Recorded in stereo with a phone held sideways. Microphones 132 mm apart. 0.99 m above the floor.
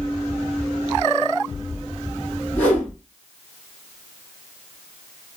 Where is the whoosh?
15° left (ahead or behind), 1.7 m.